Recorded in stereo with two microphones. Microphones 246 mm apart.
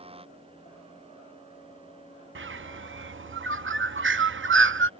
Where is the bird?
50° right (ahead or behind).